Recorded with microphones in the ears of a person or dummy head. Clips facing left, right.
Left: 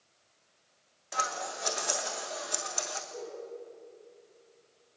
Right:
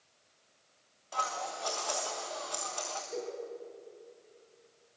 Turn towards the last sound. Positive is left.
turn(degrees=-75)  # may be behind; listen again after turning